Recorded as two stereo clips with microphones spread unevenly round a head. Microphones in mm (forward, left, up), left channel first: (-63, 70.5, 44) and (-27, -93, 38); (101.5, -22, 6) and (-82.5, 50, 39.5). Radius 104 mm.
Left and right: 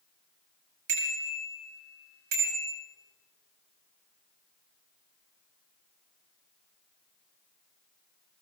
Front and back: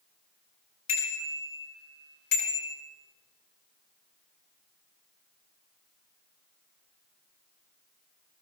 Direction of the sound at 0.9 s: 50° right.